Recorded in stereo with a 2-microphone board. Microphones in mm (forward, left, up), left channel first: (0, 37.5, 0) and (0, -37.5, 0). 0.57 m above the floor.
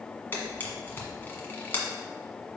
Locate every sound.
0.3 s a camera shutter: 25° left (ahead or behind), 1.5 m